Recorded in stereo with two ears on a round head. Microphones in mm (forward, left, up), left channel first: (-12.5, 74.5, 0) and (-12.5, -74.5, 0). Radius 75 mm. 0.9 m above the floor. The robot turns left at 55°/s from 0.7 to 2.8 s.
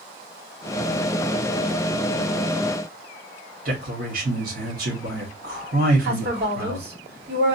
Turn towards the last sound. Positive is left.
turn(degrees=-70)  # may be behind; listen again after turning